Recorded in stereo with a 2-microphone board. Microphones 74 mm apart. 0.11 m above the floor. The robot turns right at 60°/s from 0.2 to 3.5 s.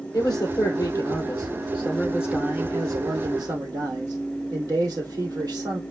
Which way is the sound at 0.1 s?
70° left.